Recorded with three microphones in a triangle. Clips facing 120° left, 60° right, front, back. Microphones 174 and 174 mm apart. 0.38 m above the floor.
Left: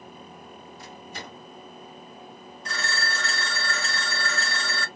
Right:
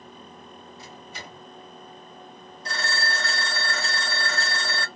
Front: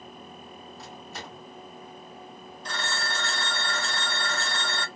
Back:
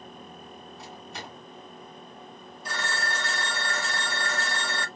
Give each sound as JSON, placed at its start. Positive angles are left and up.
{"t": 0.8, "sound": "a microwave", "azimuth_deg": 90, "distance_m": 1.9}
{"t": 2.6, "sound": "a phone ringing", "azimuth_deg": -100, "distance_m": 1.0}